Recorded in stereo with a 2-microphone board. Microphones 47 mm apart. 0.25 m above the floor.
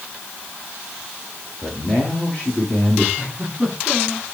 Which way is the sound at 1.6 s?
15° left (ahead or behind).